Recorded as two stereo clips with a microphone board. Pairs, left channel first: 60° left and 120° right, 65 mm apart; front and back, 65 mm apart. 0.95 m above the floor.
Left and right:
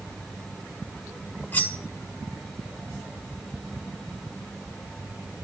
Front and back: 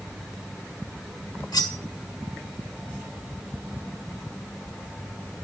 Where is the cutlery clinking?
Straight ahead, 1.4 m.